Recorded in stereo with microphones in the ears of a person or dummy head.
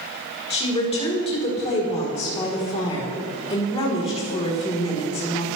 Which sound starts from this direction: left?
A woman speaking, at 0.5 s.